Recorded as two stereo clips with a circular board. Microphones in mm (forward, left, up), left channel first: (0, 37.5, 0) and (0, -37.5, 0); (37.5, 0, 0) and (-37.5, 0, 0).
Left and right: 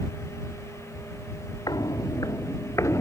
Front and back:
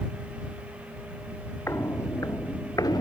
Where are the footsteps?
55° left; by 3.0 s 35° left.